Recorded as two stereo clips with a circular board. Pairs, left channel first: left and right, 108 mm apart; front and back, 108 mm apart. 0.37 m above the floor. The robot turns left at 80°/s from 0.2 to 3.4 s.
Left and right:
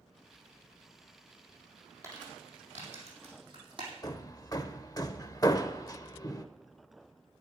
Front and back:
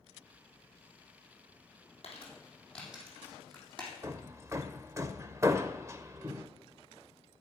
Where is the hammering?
125° left, 0.6 m.